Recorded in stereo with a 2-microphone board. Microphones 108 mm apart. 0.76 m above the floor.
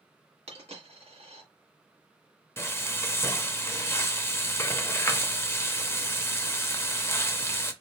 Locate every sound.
0.5 s a dropped coin: 75° right (ahead or behind), 1.6 m
2.6 s frying: 25° left (ahead or behind), 0.5 m